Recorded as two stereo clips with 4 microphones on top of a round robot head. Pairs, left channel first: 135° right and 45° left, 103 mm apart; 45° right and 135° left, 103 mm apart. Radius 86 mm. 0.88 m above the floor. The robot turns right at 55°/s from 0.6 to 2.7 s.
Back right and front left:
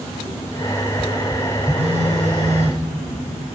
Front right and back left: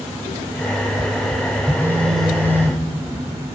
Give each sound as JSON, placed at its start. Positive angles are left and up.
{"t": 1.8, "sound": "a phone buzzing", "azimuth_deg": 20, "distance_m": 1.5}